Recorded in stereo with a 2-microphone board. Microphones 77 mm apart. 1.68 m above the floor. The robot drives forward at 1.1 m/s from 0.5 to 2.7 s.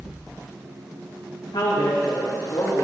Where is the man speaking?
75° left (ahead or behind), 2 m; by 2.8 s 50° left (ahead or behind), 2.5 m.